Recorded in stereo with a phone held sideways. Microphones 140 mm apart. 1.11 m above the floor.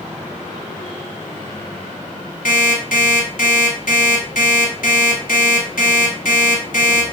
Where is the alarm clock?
75° left (ahead or behind), 1.3 m.